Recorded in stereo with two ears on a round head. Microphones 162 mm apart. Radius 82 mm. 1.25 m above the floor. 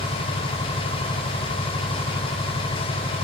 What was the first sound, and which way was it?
An engine running, 25° left (ahead or behind).